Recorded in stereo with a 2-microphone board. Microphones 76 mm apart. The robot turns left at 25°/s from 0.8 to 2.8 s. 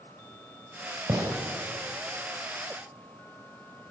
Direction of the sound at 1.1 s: 65° right (ahead or behind).